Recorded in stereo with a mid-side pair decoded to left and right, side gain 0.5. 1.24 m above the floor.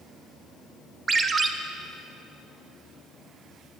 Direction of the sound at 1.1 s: 35° right.